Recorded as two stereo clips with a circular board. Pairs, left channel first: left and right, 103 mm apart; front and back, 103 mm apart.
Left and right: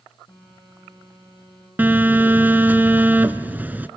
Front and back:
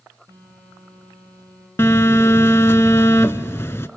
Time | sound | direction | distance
0.3 | a phone buzzing | 130° left | 4.5 m
1.8 | a phone buzzing | 35° right | 0.5 m